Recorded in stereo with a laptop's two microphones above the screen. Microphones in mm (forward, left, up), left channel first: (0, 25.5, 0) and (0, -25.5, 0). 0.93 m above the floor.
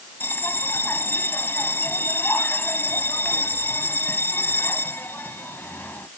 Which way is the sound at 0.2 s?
45° left (ahead or behind).